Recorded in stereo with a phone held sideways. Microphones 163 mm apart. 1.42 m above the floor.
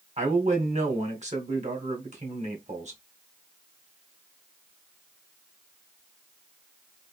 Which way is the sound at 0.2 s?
50° right (ahead or behind).